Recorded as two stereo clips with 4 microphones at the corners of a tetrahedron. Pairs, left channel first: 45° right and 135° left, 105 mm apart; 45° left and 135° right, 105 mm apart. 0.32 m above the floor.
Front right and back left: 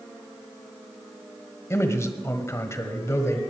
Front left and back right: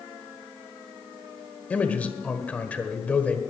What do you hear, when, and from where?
1.7 s a man speaking: 20° right, 1.6 m